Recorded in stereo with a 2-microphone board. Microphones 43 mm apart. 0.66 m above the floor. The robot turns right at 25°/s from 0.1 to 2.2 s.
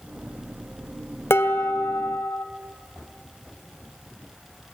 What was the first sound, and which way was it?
Dishes clattering, 75° left (ahead or behind).